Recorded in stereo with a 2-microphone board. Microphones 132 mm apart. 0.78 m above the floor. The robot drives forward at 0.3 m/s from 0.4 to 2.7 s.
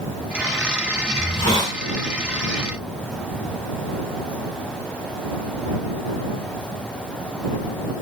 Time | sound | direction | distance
1.1 | a hiss | 35° left (ahead or behind) | 0.8 m